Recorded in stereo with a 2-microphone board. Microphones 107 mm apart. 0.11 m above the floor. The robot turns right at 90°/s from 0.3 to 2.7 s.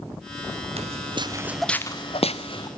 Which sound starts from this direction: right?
Footsteps, at 0.8 s.